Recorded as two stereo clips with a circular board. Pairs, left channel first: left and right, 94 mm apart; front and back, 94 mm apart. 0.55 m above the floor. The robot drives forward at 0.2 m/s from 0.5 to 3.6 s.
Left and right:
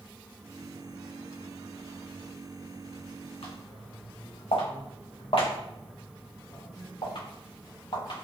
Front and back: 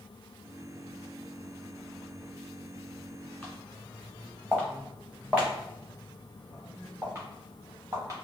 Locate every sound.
3.4 s footsteps: 80° left, 1.9 m; by 8.2 s 120° left, 3.5 m